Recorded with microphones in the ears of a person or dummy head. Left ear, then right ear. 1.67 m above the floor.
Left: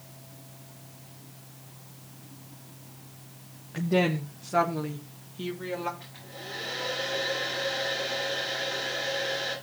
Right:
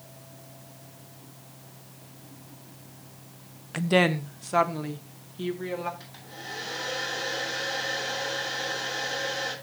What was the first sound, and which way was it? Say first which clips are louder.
A woman speaking: right 4 dB; 35° right (ahead or behind).